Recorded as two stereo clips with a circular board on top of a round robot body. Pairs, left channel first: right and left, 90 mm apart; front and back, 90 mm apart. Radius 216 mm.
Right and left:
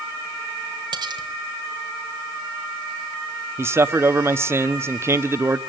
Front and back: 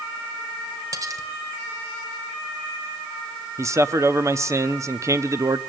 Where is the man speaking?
140° left, 1.4 m.